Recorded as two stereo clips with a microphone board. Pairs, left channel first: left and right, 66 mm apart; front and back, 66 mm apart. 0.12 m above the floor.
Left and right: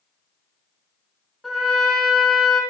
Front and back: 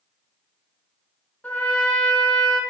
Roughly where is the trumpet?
Ahead.